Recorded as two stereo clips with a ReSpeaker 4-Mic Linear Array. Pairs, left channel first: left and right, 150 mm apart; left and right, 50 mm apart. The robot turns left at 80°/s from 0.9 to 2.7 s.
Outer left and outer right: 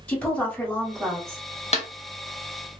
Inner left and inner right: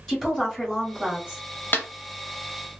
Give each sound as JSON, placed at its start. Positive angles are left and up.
{"t": 0.1, "sound": "a woman speaking", "azimuth_deg": 10, "distance_m": 1.8}
{"t": 1.7, "sound": "a snare drum", "side_deg": 45, "distance_m": 0.6}